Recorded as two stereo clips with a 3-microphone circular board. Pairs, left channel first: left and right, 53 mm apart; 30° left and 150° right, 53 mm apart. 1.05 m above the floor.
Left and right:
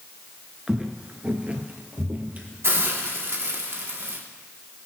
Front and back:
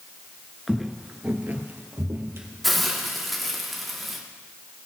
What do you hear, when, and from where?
0.7 s footsteps: 60° right, 1.0 m; by 2.5 s 145° right, 2 m
2.6 s a hiss: 60° right, 1.6 m